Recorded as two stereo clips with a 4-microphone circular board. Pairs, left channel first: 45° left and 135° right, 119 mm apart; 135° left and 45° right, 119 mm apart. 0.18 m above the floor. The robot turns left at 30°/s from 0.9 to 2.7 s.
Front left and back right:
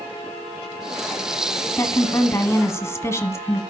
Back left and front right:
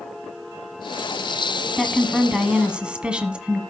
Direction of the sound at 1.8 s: 50° left.